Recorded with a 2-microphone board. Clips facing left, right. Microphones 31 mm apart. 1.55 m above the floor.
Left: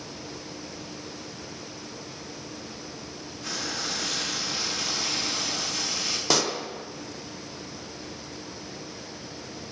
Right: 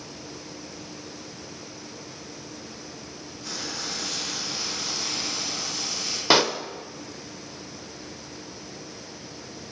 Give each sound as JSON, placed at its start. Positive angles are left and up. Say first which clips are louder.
{"t": 3.4, "sound": "frying", "louder": "left 2 dB", "side_deg": 75, "distance_m": 2.0}
{"t": 6.3, "sound": "a pop", "louder": "right 6 dB", "side_deg": -30, "distance_m": 0.7}